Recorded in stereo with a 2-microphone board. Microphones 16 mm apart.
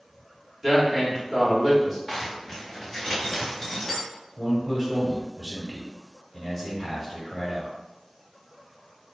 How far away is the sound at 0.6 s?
About 1.0 m.